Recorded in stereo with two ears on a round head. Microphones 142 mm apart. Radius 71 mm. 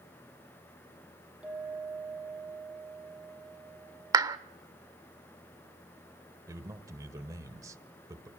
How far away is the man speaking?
About 1.6 m.